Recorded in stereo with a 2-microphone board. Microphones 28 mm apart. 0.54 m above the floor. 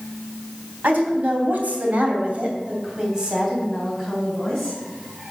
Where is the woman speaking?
75° right (ahead or behind), 3.5 m; by 4.8 s centre (ahead or behind), 5 m.